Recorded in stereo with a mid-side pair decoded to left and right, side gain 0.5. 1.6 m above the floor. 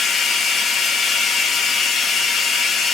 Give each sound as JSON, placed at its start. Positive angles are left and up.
{"t": 0.0, "sound": "running water", "azimuth_deg": 45, "distance_m": 0.8}